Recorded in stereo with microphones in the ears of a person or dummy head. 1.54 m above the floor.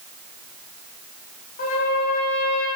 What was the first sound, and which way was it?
A trumpet, 50° left (ahead or behind).